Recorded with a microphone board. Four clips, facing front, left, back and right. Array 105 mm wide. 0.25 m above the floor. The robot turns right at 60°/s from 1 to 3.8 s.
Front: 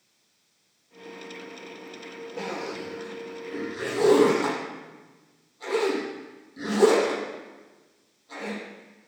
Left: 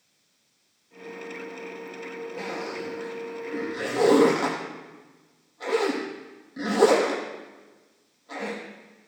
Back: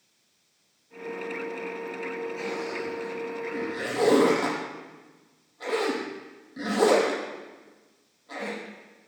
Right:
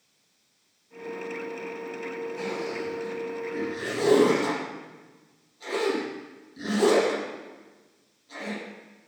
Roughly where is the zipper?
Ahead left.